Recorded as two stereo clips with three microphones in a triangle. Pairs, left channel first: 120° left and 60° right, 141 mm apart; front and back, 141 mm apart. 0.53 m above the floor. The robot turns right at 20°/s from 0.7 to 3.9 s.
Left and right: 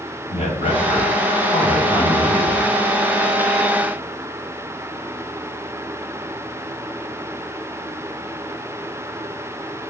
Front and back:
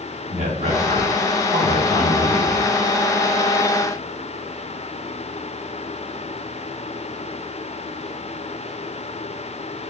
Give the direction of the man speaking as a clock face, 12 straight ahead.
7 o'clock.